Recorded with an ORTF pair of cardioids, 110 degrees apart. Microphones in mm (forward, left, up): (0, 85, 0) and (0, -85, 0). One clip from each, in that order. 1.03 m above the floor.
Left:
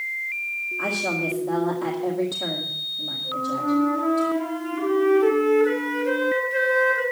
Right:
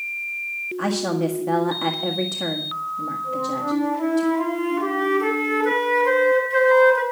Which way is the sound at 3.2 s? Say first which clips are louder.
Even; 70° right.